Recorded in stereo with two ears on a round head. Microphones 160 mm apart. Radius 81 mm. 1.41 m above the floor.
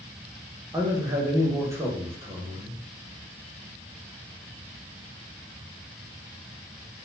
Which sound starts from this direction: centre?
A man speaking, at 0.7 s.